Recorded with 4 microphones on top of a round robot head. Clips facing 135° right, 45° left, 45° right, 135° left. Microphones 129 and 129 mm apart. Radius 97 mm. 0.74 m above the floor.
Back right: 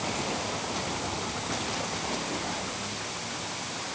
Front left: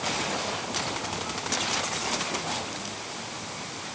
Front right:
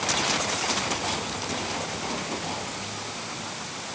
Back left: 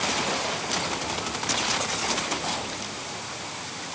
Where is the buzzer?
No buzzer in this recording.